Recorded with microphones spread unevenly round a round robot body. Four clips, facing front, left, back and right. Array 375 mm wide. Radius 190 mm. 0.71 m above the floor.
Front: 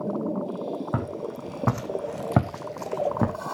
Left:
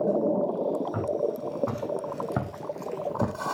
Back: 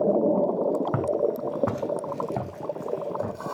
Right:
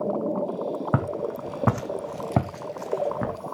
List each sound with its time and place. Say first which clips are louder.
0.9 s footsteps: even, back 6 dB; 85° right, 2.5 m; by 3.4 s 15° left, 2 m